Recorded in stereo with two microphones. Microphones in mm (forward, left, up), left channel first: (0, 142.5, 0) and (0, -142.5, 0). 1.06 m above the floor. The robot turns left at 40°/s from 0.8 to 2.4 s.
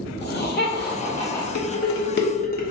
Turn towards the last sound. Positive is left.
turn(degrees=30)  # may be behind; listen again after turning